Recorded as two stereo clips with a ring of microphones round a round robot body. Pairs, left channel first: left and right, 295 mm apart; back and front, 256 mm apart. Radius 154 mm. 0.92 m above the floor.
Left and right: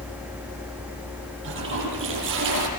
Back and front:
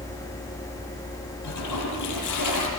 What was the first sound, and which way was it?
A toilet flushing, 145° right.